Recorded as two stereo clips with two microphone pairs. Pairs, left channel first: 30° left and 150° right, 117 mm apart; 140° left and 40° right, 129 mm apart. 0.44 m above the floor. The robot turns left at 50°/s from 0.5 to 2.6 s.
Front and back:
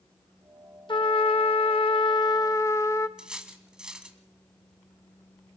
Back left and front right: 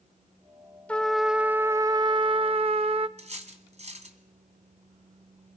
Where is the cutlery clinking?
65° right, 2.5 m.